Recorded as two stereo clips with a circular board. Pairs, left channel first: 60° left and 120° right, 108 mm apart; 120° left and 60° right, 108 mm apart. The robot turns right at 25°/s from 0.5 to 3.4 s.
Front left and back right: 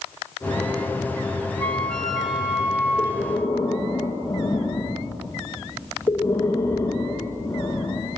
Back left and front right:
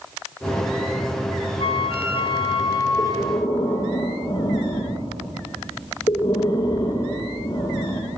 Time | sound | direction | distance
1.6 | a flute | 135° left | 0.9 m
3.0 | breathing | 95° left | 1.5 m